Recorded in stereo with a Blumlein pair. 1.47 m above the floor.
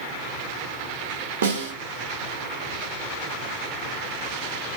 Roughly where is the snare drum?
Ahead right.